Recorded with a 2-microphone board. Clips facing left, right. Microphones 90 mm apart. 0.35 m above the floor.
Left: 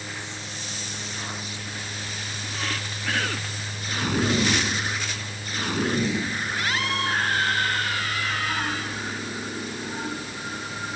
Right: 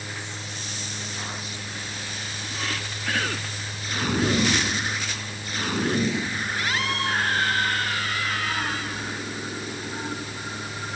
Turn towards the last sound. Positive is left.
No sound to turn to.